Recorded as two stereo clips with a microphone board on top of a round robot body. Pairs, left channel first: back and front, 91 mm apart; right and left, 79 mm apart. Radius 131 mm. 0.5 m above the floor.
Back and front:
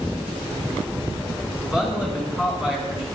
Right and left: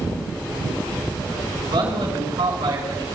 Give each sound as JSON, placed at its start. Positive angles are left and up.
{"t": 1.6, "sound": "a man speaking", "azimuth_deg": 80, "distance_m": 6.5}